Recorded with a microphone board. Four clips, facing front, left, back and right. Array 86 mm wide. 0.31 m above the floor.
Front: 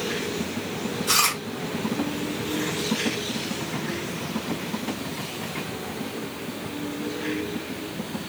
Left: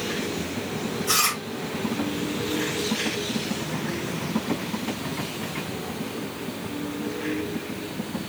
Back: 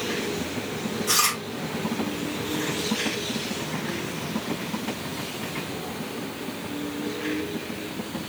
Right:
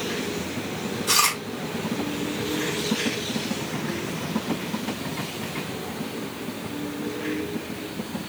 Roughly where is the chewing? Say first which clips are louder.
Right 3 dB, front 1 dB; ahead right.